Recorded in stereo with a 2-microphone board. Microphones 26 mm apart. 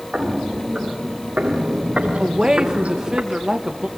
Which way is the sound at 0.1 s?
45° right (ahead or behind).